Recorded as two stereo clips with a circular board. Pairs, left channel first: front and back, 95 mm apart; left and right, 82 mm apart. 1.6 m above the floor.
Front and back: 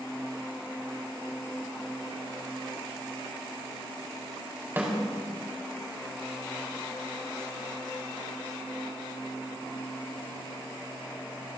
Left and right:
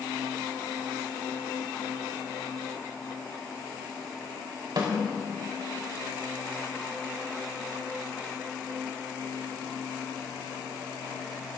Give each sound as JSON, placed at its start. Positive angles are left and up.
{"t": 4.8, "sound": "a snare drum", "azimuth_deg": -110, "distance_m": 4.0}